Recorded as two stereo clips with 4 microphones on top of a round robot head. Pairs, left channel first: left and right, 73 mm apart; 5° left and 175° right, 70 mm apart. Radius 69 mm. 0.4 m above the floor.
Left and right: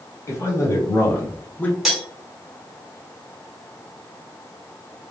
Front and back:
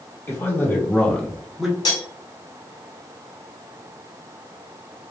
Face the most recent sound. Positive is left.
turn(degrees=-5)